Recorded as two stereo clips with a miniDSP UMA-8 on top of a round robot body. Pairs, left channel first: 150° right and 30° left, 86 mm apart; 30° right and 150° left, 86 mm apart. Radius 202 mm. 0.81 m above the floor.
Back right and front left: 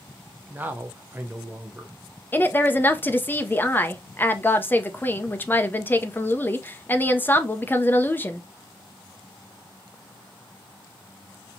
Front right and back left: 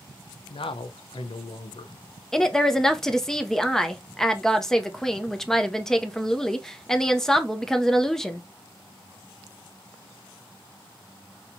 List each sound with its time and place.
0.5 s a man speaking: 40° right, 0.7 m
2.3 s a woman speaking: 110° right, 0.8 m